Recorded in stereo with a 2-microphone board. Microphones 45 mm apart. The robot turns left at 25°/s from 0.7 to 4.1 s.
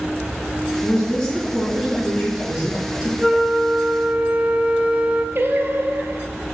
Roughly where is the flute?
Centre.